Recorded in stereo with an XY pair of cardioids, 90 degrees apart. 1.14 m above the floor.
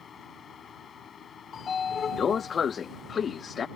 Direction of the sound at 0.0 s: 55° left.